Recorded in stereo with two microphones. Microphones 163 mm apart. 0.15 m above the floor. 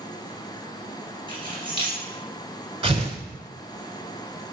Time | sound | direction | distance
1.3 | keys jangling | 30° right (ahead or behind) | 2 m
2.8 | tearing paper | 35° right (ahead or behind) | 0.8 m